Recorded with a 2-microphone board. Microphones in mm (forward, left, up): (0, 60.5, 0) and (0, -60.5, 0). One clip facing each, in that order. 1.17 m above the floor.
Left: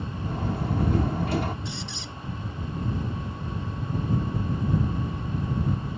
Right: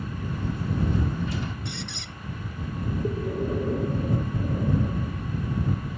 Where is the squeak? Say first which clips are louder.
Even; 60° right (ahead or behind).